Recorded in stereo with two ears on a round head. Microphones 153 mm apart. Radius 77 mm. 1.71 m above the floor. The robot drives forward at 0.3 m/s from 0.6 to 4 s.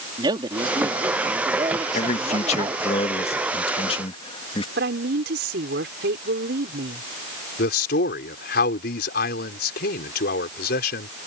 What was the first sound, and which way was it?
A man speaking, 25° right (ahead or behind).